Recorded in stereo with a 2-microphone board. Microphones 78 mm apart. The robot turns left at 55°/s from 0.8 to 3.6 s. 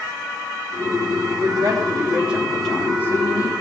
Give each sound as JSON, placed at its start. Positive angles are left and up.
{"t": 1.4, "sound": "a woman speaking", "azimuth_deg": -115, "distance_m": 4.0}